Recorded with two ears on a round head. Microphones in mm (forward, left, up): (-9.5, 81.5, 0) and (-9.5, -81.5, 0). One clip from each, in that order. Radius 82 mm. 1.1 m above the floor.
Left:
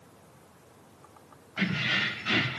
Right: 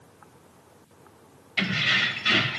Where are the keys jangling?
70° right (ahead or behind), 4.5 m; by 2.6 s 85° right, 4 m.